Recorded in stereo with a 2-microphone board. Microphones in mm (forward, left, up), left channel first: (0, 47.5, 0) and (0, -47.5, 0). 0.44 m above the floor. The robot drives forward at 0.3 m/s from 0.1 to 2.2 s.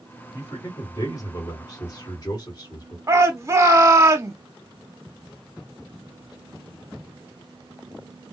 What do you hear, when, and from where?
0.3 s a man speaking: 35° left (ahead or behind), 1.7 m; by 3.0 s 40° left (ahead or behind), 1.6 m
3.1 s a shout: 30° right (ahead or behind), 0.9 m